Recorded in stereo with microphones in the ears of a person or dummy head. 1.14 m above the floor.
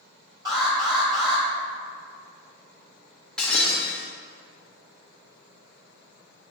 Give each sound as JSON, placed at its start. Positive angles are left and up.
{"t": 0.5, "sound": "an alarm", "side_deg": -25, "distance_m": 2.0}
{"t": 3.4, "sound": "breaking glass", "side_deg": 5, "distance_m": 0.5}